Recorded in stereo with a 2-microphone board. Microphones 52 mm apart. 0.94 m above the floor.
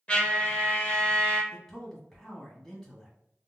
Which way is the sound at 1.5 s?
5° left (ahead or behind).